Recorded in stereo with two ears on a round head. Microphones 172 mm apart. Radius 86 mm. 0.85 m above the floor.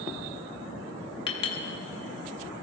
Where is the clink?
25° left (ahead or behind), 1.1 m.